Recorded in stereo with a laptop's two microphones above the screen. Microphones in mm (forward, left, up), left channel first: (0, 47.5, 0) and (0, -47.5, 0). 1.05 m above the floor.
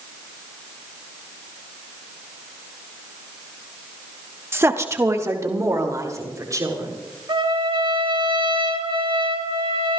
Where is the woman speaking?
25° right (ahead or behind), 1.1 m; by 7.0 s 35° right (ahead or behind), 4 m.